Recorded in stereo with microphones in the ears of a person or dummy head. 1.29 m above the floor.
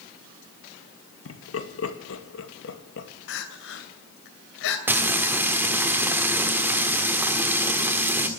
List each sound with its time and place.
1.2 s laughter: 75° left (ahead or behind), 2 m; by 3.1 s 70° left (ahead or behind), 2 m
3.3 s crying: 70° left (ahead or behind), 2.5 m
4.9 s frying: 15° right (ahead or behind), 1.4 m